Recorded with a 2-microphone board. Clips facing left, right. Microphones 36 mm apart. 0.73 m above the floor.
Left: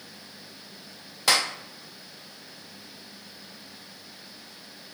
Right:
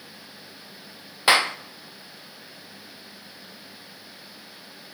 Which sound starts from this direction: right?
A clap, at 1.3 s.